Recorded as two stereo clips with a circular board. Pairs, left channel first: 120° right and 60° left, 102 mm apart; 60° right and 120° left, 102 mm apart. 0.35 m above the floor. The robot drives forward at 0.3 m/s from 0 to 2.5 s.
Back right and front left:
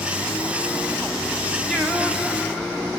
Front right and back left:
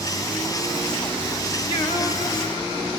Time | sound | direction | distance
1.7 | singing | 25° right | 1.0 m